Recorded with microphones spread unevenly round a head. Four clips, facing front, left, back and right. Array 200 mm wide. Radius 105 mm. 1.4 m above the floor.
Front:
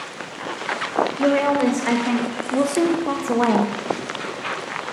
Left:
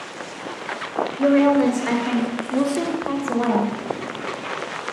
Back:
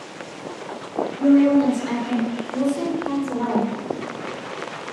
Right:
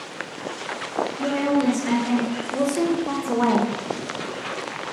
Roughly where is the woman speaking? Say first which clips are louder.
Left 7 dB, back 5 dB; ahead left.